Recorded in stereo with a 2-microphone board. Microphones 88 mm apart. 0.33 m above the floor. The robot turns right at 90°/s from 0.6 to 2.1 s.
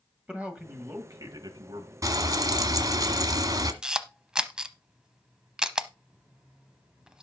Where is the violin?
I don't hear a violin.